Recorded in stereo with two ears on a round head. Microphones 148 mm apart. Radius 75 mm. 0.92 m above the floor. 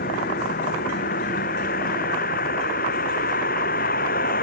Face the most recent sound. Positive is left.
turn(degrees=60)  # may be behind; listen again after turning